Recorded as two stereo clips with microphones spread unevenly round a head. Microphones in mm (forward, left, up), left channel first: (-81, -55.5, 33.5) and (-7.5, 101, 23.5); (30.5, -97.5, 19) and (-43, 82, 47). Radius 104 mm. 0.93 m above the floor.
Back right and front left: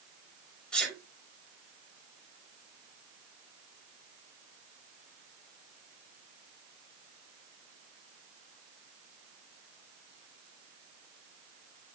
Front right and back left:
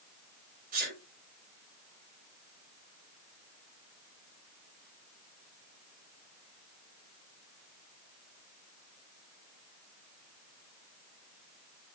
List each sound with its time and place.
0.7 s a sneeze: 160° left, 6 m